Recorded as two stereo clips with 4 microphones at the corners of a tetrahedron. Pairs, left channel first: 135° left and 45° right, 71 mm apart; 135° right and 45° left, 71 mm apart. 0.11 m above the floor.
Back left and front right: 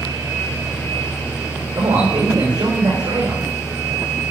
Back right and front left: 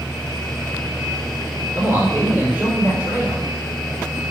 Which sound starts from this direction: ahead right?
A man speaking, at 1.8 s.